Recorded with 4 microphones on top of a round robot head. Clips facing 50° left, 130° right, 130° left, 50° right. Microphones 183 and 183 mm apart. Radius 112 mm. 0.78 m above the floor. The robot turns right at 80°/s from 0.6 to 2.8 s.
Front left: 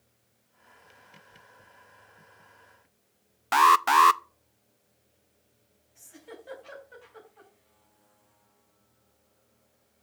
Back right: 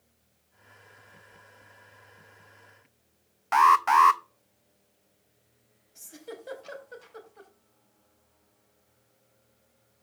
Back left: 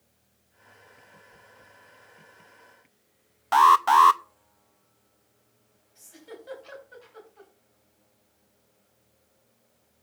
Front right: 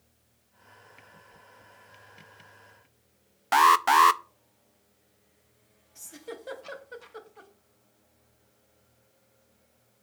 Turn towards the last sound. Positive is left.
turn(degrees=-85)